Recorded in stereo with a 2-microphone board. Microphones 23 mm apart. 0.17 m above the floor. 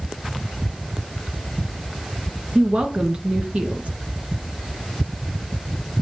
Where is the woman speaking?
60° right (ahead or behind), 2 m.